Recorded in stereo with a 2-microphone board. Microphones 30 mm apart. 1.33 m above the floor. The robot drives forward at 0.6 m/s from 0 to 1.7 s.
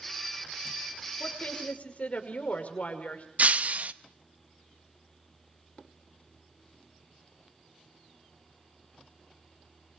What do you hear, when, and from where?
1.2 s a woman speaking: 50° left (ahead or behind), 5.5 m
3.4 s breaking glass: 50° right (ahead or behind), 0.8 m